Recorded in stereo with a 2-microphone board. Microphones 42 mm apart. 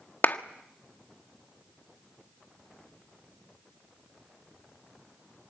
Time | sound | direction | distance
0.2 | a clap | 50° left (ahead or behind) | 1.3 m